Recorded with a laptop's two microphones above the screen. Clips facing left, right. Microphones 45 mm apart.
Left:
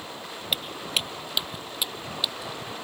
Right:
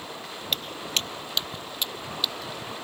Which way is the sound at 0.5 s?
10° left (ahead or behind).